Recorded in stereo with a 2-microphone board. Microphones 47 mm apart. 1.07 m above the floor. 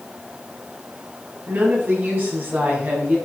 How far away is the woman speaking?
About 7 m.